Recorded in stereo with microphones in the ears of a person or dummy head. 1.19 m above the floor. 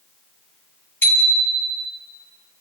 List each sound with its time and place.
1.0 s a bicycle bell: 15° left (ahead or behind), 7.5 m